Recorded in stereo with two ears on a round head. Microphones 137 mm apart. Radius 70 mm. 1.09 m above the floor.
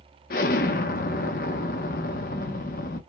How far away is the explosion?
About 0.8 m.